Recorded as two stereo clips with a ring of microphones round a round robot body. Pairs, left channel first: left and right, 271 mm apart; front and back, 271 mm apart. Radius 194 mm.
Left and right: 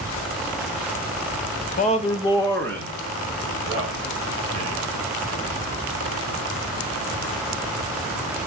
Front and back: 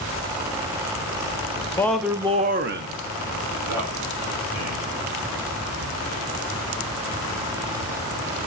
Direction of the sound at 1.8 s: 70° left.